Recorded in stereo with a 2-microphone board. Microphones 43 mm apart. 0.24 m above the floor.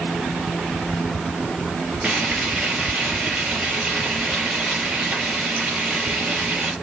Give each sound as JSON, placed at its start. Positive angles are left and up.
{"t": 2.0, "sound": "frying", "side_deg": -20, "distance_m": 4.0}